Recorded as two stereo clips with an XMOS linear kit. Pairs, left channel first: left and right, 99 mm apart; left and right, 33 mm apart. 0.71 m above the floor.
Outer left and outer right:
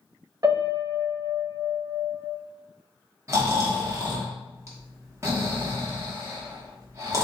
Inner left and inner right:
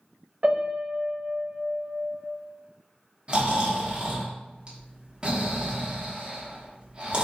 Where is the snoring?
30° right (ahead or behind), 1.0 m.